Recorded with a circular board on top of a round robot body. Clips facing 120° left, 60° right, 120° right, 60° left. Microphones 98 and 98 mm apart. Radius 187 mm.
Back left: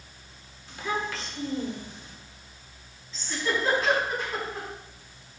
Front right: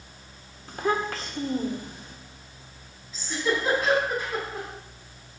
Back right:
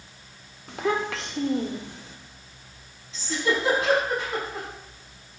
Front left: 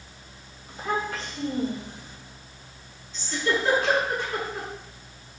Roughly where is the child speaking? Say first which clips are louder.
Front right 5 dB, back right 3 dB; right.